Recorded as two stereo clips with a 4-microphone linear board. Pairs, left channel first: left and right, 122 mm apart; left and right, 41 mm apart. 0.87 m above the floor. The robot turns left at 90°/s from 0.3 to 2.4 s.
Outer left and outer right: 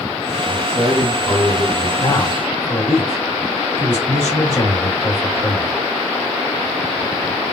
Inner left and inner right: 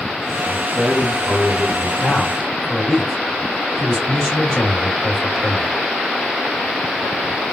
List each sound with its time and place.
0.5 s a man speaking: 115° right, 1.4 m; by 1.9 s 115° left, 1.4 m
2.0 s a man speaking: 40° left, 1.6 m; by 5.8 s 5° left, 1.6 m